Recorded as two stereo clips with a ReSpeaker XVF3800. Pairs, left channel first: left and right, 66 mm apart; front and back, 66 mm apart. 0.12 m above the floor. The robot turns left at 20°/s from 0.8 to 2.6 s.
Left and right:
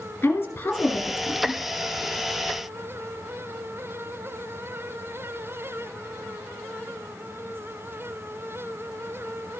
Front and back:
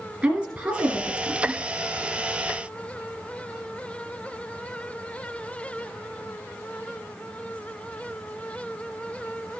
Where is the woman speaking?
120° left, 1.5 m; by 1.6 s 100° left, 1.5 m.